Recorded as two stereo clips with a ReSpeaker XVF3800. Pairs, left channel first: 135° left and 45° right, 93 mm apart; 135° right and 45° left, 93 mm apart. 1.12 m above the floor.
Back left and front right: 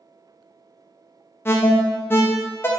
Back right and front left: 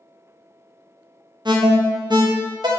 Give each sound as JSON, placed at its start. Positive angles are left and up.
{"t": 1.4, "sound": "an alarm", "azimuth_deg": 70, "distance_m": 0.5}